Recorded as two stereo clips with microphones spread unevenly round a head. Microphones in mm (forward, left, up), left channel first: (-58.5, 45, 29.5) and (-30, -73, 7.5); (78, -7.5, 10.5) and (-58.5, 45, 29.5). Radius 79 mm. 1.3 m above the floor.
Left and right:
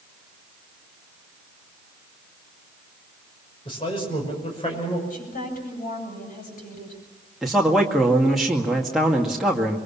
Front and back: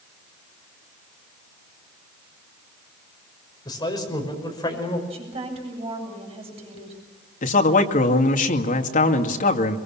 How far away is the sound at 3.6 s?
About 6 m.